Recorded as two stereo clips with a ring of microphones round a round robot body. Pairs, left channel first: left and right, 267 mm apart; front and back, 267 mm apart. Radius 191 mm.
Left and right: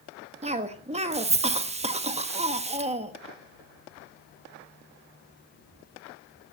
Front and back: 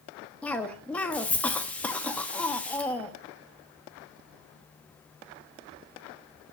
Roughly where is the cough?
Right.